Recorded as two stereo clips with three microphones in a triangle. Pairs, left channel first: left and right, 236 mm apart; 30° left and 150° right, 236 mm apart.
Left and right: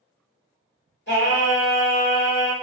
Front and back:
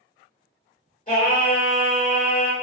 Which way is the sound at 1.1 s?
70° left.